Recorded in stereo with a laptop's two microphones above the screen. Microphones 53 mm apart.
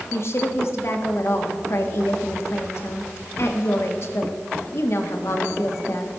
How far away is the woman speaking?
About 1.4 m.